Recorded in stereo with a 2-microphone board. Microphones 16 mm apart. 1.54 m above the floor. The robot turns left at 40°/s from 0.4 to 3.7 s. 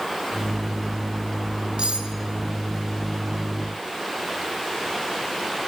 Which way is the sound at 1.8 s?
75° right (ahead or behind).